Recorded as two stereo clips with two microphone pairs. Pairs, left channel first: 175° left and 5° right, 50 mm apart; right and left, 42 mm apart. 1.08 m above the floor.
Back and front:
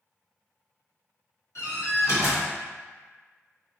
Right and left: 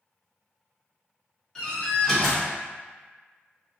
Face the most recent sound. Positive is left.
turn(degrees=-165)